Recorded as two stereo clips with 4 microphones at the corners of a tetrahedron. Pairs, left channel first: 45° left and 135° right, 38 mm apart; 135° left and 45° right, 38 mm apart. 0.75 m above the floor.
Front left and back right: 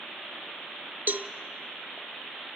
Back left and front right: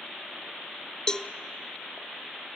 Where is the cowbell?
160° right, 0.7 m.